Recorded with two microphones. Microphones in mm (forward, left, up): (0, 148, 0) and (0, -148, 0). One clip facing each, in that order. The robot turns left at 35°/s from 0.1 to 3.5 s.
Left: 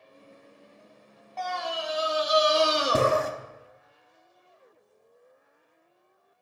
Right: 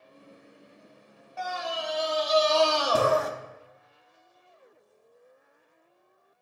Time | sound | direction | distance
1.4 | a scream | 165° right | 0.7 m